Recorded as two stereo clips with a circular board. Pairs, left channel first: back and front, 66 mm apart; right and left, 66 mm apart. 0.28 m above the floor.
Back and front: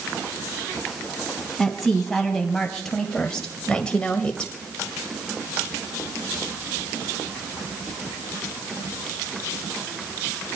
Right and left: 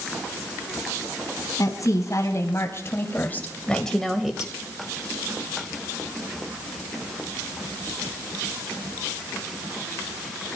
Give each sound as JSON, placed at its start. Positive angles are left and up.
{"t": 1.6, "sound": "a woman speaking", "azimuth_deg": -90, "distance_m": 2.5}